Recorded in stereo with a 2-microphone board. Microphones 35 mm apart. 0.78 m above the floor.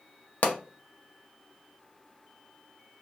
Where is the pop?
60° left (ahead or behind), 0.5 m.